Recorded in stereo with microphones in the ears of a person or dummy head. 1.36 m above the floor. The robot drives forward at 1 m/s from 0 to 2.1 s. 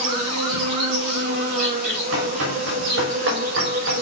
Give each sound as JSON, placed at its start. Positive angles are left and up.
{"t": 0.0, "sound": "an insect", "side_deg": -70, "distance_m": 4.0}
{"t": 2.1, "sound": "running footsteps", "side_deg": -75, "distance_m": 6.5}